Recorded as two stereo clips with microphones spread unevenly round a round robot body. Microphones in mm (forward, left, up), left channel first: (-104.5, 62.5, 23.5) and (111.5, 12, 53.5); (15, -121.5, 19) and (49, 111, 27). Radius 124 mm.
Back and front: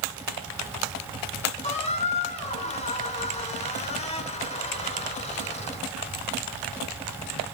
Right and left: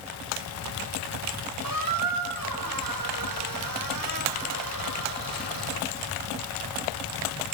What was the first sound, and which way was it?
A squeak, 105° left.